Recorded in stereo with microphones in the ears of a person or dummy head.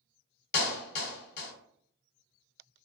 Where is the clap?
55° left (ahead or behind), 1.3 m.